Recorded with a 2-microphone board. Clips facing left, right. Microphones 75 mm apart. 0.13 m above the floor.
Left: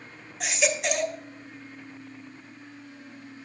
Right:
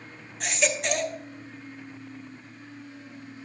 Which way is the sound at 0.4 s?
5° left (ahead or behind).